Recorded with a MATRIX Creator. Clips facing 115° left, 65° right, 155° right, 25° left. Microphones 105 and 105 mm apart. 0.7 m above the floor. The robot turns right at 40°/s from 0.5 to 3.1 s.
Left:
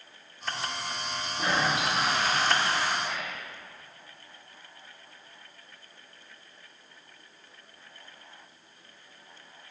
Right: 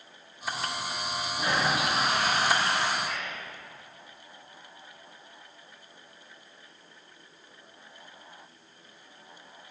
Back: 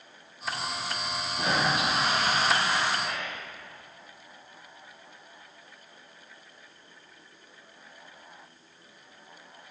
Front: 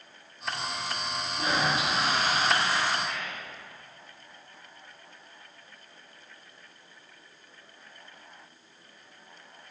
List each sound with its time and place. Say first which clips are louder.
1.4 s a toilet flushing: even, back 1 dB; 145° right, 4 m; by 2.9 s 85° right, 4 m
3.0 s whispering: even, back 1 dB; 165° right, 1.9 m; by 3.5 s 160° right, 1.9 m